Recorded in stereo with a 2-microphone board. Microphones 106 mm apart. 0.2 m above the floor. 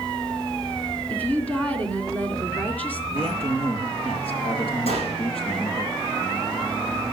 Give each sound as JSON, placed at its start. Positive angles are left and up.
{"t": 1.1, "sound": "a woman speaking", "side_deg": 15, "distance_m": 3.0}
{"t": 3.1, "sound": "a man speaking", "side_deg": 65, "distance_m": 4.5}
{"t": 4.9, "sound": "a gunshot", "side_deg": 70, "distance_m": 7.5}